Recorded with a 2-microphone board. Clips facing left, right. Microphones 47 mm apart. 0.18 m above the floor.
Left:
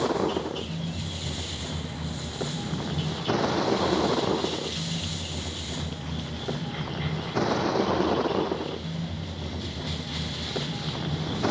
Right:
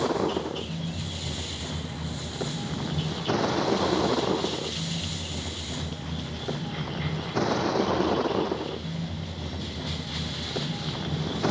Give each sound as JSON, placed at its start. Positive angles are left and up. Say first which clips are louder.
{"t": 0.0, "sound": "a vehicle", "louder": "even", "side_deg": 5}